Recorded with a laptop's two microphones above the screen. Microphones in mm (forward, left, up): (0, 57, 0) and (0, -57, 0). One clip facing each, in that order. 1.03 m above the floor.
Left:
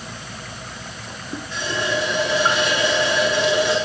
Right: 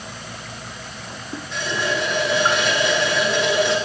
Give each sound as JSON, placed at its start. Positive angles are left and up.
{"t": 1.5, "sound": "a running tap", "side_deg": 0, "distance_m": 6.0}